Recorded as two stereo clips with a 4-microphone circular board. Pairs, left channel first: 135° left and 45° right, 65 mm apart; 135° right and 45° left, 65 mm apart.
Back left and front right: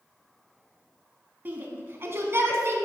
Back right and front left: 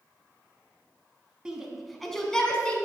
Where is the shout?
25° right, 1.2 m; by 2.8 s 70° right, 1.4 m.